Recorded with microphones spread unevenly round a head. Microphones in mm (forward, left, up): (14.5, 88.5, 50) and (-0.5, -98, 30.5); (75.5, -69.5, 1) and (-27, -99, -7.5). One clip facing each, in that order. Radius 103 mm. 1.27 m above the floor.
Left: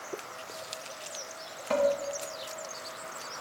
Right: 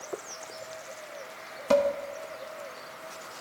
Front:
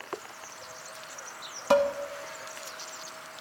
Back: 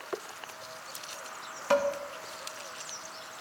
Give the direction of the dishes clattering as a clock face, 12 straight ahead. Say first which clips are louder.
Right 3 dB, front 3 dB; 2 o'clock.